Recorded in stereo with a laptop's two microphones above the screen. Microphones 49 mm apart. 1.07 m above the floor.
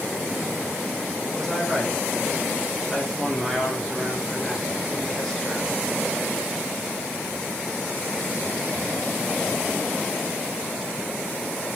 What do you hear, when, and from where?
1.3 s a man speaking: 5° left (ahead or behind), 5 m